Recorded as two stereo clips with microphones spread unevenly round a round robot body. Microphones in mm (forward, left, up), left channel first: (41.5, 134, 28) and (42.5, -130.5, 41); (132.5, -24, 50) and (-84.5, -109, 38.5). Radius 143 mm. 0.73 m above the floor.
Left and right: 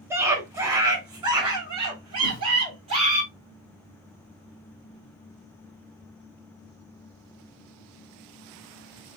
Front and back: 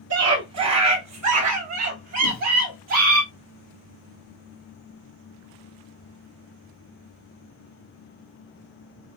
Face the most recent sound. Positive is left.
turn(degrees=60)